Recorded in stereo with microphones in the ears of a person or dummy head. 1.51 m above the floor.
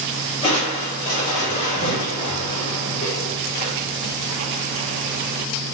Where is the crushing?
35° left (ahead or behind), 1.4 m.